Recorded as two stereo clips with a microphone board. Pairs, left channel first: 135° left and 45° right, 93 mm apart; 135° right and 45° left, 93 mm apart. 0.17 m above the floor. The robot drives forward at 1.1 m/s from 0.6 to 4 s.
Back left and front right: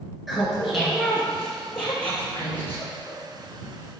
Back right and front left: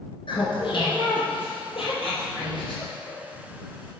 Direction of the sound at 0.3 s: 135° right.